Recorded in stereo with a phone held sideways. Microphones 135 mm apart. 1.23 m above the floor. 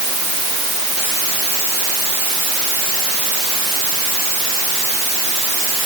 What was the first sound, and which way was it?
Only background noise.